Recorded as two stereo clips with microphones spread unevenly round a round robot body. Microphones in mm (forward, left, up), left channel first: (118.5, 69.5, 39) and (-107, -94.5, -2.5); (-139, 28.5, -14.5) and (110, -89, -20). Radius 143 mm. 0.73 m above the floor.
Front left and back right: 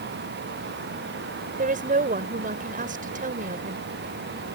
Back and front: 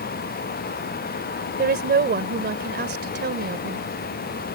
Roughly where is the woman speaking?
Right.